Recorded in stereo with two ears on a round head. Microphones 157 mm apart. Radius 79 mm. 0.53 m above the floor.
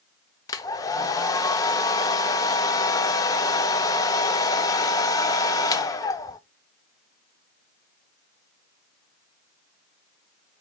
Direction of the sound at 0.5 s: 20° left (ahead or behind).